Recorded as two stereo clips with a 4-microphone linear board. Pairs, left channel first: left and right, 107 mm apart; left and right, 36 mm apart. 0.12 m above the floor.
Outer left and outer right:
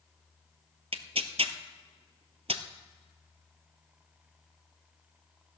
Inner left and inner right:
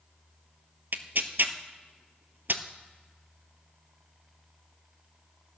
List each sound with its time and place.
0.9 s tearing paper: 65° right (ahead or behind), 0.8 m